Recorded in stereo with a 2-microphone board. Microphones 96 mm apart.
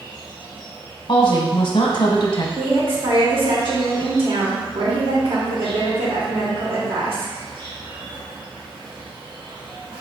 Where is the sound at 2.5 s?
60° right (ahead or behind), 1.0 m.